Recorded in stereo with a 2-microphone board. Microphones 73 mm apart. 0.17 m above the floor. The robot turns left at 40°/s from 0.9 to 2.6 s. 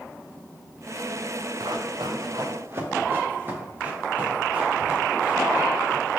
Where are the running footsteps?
75° right (ahead or behind), 1.3 m; by 6.2 s 15° right (ahead or behind), 4.5 m.